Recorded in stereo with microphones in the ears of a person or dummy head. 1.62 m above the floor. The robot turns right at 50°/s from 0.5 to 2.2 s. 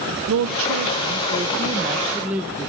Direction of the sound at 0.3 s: 90° right.